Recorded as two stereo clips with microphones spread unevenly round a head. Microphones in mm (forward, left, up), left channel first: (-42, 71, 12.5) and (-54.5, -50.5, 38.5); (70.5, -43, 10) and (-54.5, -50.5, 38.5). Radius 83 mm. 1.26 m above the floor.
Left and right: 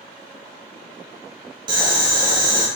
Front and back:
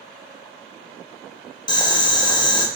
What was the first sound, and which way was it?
Boiling, 55° right.